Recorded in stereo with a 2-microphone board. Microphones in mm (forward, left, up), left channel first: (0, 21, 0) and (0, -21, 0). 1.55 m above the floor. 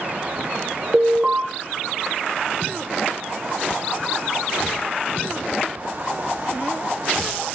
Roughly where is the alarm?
Centre.